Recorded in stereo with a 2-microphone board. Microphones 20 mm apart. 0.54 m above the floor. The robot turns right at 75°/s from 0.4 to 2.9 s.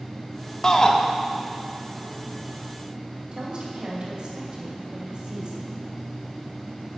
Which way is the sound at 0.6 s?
25° left (ahead or behind).